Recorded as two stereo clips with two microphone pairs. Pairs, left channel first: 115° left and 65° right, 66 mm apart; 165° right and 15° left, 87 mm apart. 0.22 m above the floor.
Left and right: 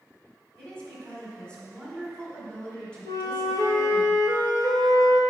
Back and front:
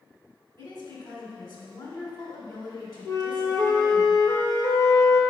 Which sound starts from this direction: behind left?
A flute, at 3.0 s.